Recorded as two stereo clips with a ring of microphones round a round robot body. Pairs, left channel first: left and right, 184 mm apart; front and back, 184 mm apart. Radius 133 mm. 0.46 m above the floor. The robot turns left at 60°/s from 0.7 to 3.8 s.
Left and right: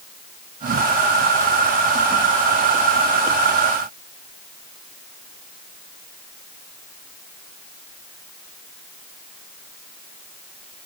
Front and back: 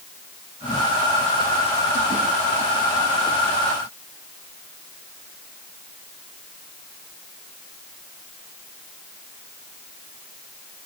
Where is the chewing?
I don't hear chewing.